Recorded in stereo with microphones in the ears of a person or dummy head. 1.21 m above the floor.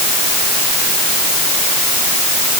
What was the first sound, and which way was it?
Only background noise.